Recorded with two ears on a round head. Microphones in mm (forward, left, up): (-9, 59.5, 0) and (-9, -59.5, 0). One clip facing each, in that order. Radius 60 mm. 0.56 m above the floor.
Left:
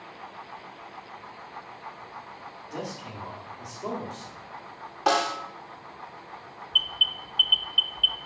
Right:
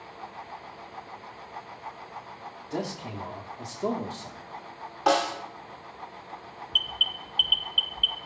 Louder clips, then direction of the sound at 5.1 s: Right 1 dB; centre (ahead or behind).